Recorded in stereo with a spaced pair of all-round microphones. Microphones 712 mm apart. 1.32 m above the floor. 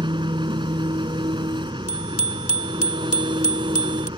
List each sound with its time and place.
0.0 s an engine running: 5° right (ahead or behind)
1.9 s a bicycle bell: 65° left (ahead or behind)